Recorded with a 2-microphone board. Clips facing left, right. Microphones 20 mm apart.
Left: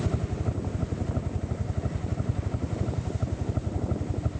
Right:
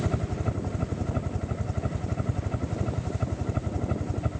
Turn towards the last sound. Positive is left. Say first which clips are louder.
# right 1 dB
turn(degrees=-50)  # may be behind; listen again after turning